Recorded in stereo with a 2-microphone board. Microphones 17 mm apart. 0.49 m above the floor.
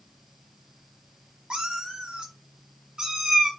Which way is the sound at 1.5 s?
70° right (ahead or behind).